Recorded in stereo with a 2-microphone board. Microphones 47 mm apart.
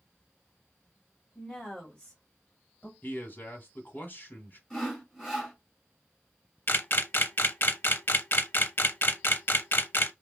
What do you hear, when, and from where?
1.4 s a woman speaking: 5° left (ahead or behind), 2 m; by 2.9 s 35° left (ahead or behind), 1.2 m
3.0 s a man speaking: 40° left (ahead or behind), 1.9 m
4.7 s sawing: 15° left (ahead or behind), 3 m
6.7 s a camera shutter: 50° left (ahead or behind), 0.6 m